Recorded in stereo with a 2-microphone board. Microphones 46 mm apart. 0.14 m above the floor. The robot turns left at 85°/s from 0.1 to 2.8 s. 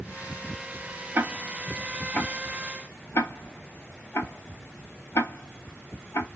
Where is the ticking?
50° right (ahead or behind), 0.7 m; by 6.3 s 70° left (ahead or behind), 0.7 m.